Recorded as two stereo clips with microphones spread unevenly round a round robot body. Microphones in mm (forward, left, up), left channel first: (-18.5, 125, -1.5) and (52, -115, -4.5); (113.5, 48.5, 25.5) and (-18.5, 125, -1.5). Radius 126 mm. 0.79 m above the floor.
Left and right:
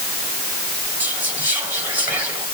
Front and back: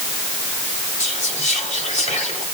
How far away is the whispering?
About 4.5 m.